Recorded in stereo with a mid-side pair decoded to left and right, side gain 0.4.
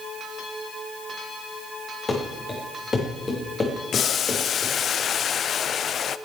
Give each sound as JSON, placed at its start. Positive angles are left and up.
{"t": 2.1, "sound": "running footsteps", "azimuth_deg": 30, "distance_m": 6.0}
{"t": 3.9, "sound": "boiling", "azimuth_deg": 60, "distance_m": 0.5}